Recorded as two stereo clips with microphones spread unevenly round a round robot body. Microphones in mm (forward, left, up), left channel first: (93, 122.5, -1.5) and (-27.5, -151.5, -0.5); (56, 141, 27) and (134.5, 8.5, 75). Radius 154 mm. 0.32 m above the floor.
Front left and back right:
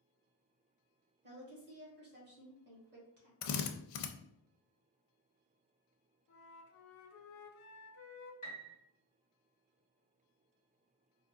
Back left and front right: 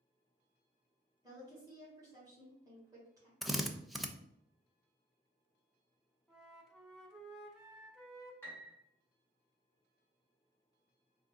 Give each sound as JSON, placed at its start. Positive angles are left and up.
{"t": 1.2, "sound": "a woman speaking", "azimuth_deg": -140, "distance_m": 1.4}
{"t": 3.4, "sound": "a drill", "azimuth_deg": 40, "distance_m": 0.5}
{"t": 6.3, "sound": "a flute", "azimuth_deg": 30, "distance_m": 0.9}
{"t": 8.4, "sound": "a piano", "azimuth_deg": 105, "distance_m": 1.4}